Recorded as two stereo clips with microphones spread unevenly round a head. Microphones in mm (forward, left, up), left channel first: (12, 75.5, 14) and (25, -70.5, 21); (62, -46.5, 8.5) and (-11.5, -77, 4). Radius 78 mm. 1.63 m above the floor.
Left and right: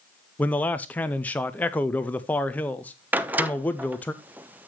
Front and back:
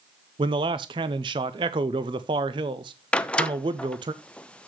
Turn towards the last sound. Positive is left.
turn(degrees=-25)